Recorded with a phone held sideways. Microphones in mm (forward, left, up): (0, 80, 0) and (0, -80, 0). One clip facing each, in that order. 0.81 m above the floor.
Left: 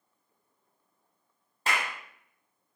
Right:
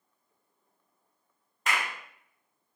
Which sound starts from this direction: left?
A clap, at 1.7 s.